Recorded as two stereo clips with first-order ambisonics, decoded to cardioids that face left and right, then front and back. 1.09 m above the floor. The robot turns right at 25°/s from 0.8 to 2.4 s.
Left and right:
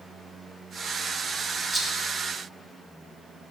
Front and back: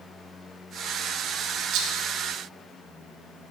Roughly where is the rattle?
Behind.